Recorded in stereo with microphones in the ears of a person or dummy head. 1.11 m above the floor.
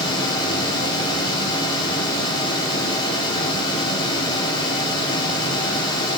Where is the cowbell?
I don't hear a cowbell.